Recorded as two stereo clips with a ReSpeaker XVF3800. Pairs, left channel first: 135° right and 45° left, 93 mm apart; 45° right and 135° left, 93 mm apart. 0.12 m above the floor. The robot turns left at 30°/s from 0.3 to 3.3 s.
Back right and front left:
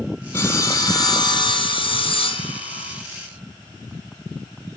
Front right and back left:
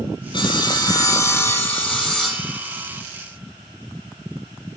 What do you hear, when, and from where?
0.3 s sawing: 80° right, 1.3 m; by 3.0 s 160° right, 1.3 m